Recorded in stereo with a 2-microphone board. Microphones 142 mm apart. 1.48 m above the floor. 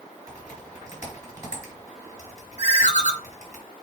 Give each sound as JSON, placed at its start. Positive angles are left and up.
{"t": 0.3, "sound": "typing on a keyboard", "side_deg": -20, "distance_m": 4.0}
{"t": 2.6, "sound": "a ringtone", "side_deg": 55, "distance_m": 1.3}